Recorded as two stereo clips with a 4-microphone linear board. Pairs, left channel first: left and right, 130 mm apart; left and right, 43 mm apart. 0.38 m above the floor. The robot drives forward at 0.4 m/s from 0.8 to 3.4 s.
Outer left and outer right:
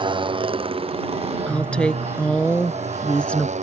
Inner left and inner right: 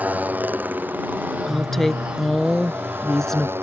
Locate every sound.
0.0 s a motorcycle: 40° right (ahead or behind); by 3.6 s 65° right (ahead or behind)
1.5 s a woman speaking: 10° left (ahead or behind)